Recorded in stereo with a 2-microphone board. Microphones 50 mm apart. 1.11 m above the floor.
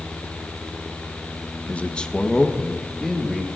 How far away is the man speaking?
About 0.6 m.